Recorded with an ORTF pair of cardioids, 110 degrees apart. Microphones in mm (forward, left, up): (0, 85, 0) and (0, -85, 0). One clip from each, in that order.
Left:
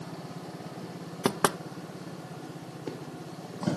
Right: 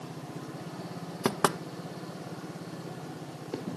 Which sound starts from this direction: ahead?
Knocking, at 1.2 s.